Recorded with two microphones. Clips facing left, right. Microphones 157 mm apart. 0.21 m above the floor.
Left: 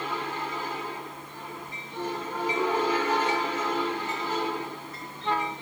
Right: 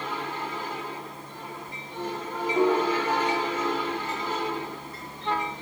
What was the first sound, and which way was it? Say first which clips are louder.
A piano: right 4 dB; 45° right (ahead or behind).